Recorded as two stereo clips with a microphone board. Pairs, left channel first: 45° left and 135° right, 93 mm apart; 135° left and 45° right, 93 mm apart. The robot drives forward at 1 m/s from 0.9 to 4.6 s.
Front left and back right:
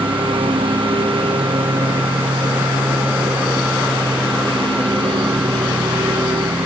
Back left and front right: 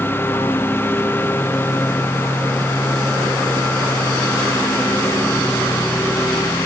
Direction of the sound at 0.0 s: 160° right.